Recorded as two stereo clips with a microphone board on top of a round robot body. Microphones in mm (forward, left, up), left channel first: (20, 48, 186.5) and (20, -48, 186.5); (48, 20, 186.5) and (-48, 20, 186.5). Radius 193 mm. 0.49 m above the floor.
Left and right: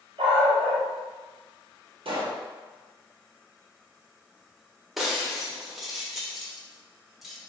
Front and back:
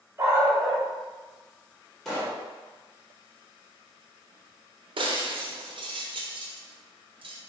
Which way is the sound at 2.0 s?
90° right.